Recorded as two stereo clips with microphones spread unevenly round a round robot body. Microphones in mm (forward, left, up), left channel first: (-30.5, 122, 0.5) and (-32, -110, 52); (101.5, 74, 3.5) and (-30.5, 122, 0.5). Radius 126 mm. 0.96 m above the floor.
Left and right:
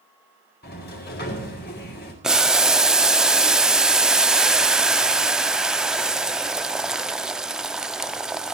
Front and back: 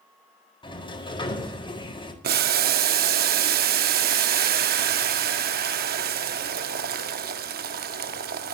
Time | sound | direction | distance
0.6 | a sliding door | 35° left | 4.5 m
2.2 | boiling | 175° right | 0.8 m